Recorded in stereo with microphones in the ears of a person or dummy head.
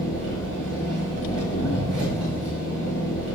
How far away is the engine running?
About 4.5 m.